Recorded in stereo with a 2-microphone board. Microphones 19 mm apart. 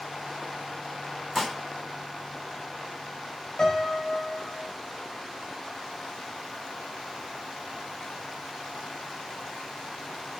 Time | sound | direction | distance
1.4 | dishes clattering | centre (ahead or behind) | 3.5 m
3.6 | a piano | 30° left (ahead or behind) | 5 m